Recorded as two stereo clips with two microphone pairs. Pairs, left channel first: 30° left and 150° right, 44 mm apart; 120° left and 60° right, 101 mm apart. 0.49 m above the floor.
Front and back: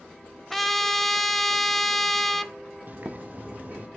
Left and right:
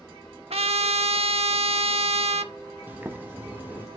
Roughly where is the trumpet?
Ahead right.